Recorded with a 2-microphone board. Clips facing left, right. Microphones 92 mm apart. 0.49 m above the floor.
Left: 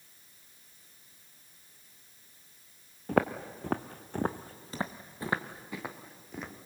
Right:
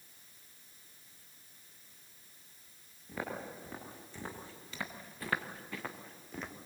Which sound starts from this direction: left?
Footsteps, at 3.1 s.